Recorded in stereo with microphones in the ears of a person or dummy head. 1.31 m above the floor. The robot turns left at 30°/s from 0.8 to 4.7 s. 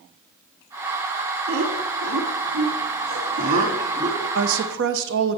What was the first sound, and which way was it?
Laughter, 70° right (ahead or behind).